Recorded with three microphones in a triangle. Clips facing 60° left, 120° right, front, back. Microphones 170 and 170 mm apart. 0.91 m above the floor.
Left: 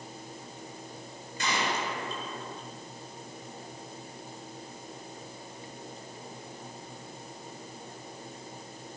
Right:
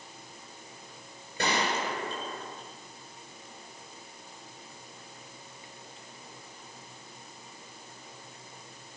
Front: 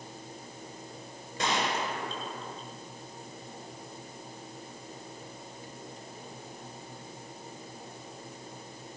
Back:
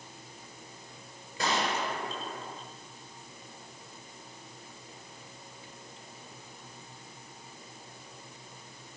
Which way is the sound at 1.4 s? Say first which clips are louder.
Right 2 dB, even; 90° right.